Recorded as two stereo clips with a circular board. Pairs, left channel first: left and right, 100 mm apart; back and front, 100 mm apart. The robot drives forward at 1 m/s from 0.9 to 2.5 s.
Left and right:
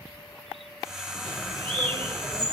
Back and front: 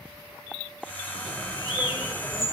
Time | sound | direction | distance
1.2 | a bird | 50° right | 7.5 m